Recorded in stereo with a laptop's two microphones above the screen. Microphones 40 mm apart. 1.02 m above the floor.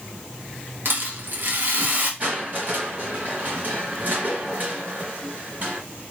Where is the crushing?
40° right (ahead or behind), 3 m.